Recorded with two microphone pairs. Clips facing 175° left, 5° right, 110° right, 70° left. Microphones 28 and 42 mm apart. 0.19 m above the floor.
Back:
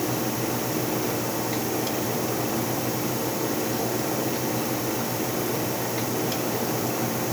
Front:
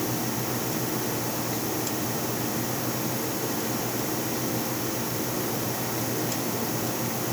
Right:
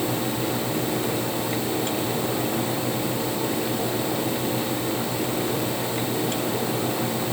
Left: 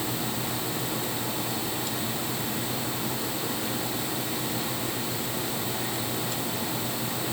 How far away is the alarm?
I don't hear an alarm.